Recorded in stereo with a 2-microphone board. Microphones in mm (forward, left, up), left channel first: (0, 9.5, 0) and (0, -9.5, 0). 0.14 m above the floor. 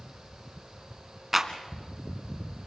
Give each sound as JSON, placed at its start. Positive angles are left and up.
{"t": 1.3, "sound": "a clap", "side_deg": -20, "distance_m": 1.3}